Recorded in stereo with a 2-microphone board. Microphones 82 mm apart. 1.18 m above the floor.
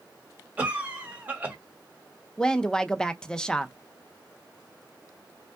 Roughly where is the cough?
Right.